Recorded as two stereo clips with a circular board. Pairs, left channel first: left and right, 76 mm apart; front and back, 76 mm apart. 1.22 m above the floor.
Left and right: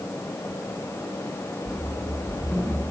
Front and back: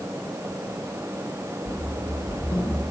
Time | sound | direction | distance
1.6 | running footsteps | 10° right | 4.5 m